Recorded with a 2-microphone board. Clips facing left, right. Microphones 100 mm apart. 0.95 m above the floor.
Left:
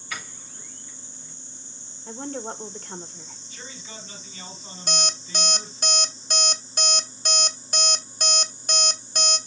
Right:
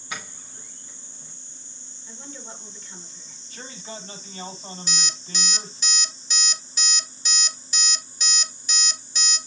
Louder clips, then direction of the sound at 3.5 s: Right 5 dB; 45° right (ahead or behind).